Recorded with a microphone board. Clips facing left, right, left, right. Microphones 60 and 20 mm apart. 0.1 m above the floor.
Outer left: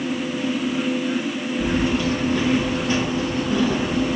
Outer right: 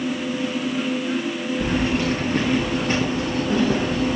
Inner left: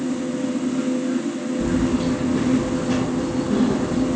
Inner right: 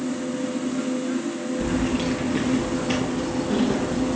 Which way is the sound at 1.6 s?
50° right (ahead or behind).